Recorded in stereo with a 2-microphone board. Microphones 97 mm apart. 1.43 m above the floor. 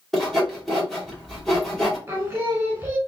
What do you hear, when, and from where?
0.1 s sawing: centre (ahead or behind), 1.2 m
2.1 s singing: 25° right (ahead or behind), 1.3 m